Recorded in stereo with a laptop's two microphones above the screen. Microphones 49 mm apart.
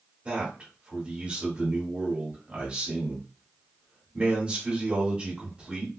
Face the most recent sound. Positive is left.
turn(degrees=-20)  # may be behind; listen again after turning